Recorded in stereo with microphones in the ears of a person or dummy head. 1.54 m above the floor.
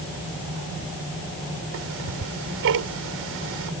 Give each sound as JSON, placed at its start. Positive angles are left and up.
{"t": 1.7, "sound": "ticking", "side_deg": -65}